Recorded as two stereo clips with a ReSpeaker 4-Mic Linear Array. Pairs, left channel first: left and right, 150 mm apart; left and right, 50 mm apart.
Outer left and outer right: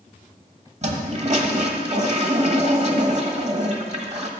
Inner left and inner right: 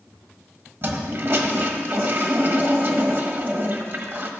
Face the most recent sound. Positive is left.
turn(degrees=-50)  # may be behind; listen again after turning